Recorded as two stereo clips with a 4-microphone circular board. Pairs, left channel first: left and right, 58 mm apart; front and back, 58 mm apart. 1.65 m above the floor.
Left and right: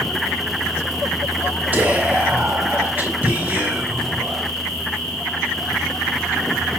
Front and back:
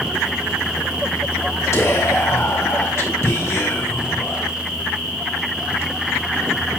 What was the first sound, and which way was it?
Whispering, 30° right.